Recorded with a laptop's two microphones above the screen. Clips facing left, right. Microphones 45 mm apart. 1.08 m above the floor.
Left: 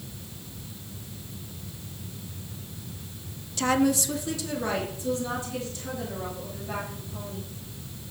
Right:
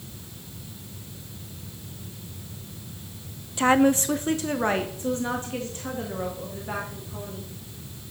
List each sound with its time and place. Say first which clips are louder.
3.6 s a woman speaking: right 4 dB; 20° right (ahead or behind), 0.6 m; by 7.5 s 35° right (ahead or behind), 3 m